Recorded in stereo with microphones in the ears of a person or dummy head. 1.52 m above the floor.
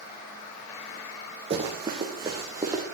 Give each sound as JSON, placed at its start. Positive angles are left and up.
{"t": 1.5, "sound": "running footsteps", "side_deg": -25, "distance_m": 3.0}